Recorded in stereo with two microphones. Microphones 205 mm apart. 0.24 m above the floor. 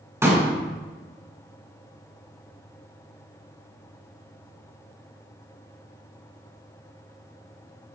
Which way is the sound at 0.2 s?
10° right (ahead or behind).